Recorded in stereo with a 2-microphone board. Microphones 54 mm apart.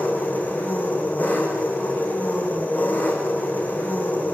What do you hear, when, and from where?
0.0 s an engine running: 30° left (ahead or behind), 4.5 m